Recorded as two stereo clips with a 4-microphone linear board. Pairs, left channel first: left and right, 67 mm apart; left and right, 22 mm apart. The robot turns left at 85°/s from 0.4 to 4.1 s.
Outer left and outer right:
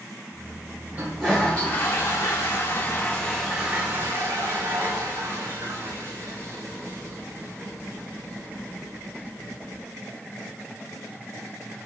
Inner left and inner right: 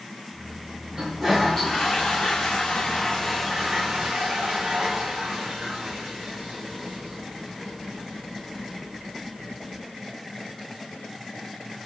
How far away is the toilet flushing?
About 4.5 m.